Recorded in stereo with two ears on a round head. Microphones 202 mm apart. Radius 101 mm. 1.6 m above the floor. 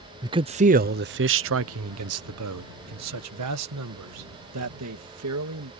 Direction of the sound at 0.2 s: 15° right (ahead or behind).